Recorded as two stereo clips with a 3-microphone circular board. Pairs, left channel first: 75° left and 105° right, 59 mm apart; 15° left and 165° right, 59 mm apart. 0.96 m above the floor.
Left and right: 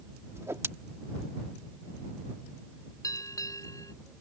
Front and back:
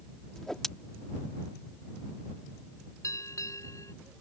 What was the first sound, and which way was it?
A whoosh, 65° right.